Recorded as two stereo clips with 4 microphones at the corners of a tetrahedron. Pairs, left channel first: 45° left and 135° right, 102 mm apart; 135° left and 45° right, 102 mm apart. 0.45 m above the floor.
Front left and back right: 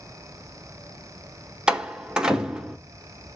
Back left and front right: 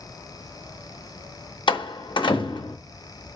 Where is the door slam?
145° left, 0.7 m.